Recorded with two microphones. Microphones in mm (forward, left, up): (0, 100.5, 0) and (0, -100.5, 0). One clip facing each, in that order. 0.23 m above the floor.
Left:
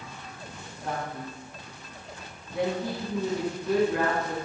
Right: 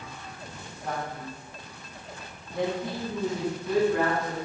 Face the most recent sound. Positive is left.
turn(degrees=5)  # may be behind; listen again after turning